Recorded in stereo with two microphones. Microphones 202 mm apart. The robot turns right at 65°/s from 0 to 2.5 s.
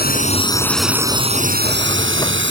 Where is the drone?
50° left (ahead or behind); by 2.5 s 65° right (ahead or behind).